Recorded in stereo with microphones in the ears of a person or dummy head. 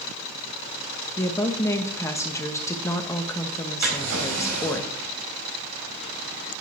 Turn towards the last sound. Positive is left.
turn(degrees=-75)  # may be behind; listen again after turning